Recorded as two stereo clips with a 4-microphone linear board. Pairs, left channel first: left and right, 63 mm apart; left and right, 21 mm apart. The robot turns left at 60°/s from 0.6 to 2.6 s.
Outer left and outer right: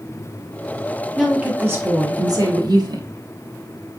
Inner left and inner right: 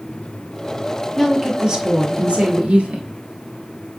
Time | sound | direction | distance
1.2 | a woman speaking | 5° right | 1.3 m